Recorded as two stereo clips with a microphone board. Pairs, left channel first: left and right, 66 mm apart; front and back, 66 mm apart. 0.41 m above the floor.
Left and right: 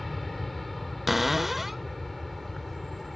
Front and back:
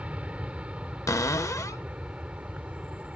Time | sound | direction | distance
0.0 | an aircraft | straight behind | ?
1.1 | a cupboard door | 5° right | ?